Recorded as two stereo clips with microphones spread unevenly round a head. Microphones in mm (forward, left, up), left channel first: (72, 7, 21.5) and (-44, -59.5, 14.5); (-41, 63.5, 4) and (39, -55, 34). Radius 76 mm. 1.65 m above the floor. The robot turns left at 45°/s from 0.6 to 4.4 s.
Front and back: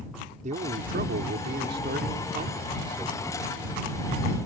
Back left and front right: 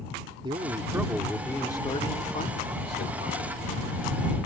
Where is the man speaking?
115° right; by 3.5 s 115° left.